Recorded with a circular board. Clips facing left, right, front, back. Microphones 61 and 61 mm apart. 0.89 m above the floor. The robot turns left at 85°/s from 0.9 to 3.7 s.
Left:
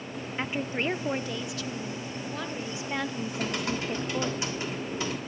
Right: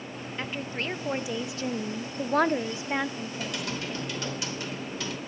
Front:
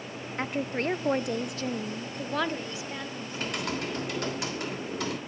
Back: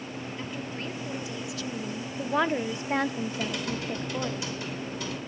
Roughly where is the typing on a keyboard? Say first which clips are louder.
Left 3 dB, back 1 dB; ahead left.